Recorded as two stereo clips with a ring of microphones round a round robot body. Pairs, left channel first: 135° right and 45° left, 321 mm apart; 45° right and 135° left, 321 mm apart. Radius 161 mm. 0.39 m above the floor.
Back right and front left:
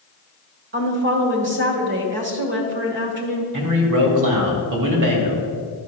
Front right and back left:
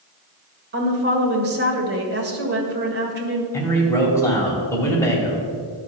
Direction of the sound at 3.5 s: 35° left.